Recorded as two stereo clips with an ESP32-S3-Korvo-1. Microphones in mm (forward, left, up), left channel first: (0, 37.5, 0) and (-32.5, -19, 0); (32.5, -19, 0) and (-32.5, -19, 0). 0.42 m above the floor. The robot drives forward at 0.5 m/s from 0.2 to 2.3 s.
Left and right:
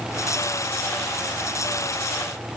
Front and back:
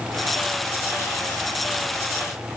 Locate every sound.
Only background noise.